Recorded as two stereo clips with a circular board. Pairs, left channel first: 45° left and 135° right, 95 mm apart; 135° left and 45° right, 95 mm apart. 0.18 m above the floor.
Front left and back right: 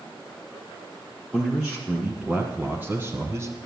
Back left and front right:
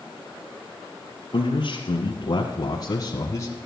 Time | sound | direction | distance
1.3 | a man speaking | 135° left | 2.0 m